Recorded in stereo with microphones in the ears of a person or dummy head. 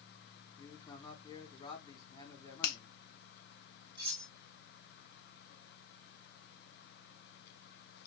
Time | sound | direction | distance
0.6 | a man speaking | 20° left (ahead or behind) | 1.8 m
2.6 | a finger snap | 65° left (ahead or behind) | 0.7 m
4.0 | cutlery clinking | 30° right (ahead or behind) | 2.5 m